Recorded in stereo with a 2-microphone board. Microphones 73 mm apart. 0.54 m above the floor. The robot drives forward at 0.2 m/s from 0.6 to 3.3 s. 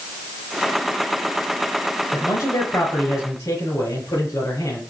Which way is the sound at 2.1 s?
55° left (ahead or behind).